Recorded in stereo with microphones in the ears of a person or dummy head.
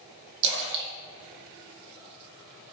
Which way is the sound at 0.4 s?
65° right (ahead or behind).